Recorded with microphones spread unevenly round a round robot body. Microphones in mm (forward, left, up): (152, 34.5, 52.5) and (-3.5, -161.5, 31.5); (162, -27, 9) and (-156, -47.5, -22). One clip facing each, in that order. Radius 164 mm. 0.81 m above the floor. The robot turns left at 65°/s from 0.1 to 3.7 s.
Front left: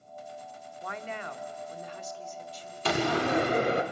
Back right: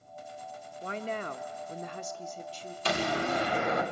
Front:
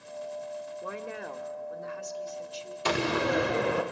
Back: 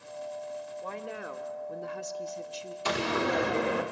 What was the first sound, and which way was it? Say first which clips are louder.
A woman speaking: back right 4 dB, front 1 dB; 70° right.